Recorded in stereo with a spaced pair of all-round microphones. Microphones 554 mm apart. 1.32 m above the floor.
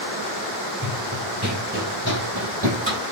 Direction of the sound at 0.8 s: 20° right (ahead or behind).